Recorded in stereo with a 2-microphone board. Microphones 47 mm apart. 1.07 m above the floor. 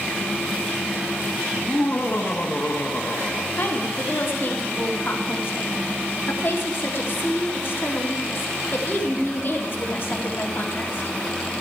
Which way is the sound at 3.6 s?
55° left (ahead or behind).